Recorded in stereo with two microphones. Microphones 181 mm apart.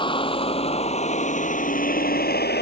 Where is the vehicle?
30° left (ahead or behind); by 2.6 s 65° left (ahead or behind).